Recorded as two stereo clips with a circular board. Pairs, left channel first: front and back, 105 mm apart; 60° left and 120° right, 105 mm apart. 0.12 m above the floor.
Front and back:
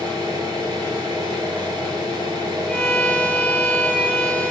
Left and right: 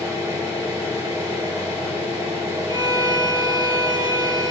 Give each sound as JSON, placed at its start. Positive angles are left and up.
{"t": 0.0, "sound": "an engine running", "azimuth_deg": -175, "distance_m": 1.4}
{"t": 2.7, "sound": "a violin", "azimuth_deg": -80, "distance_m": 0.6}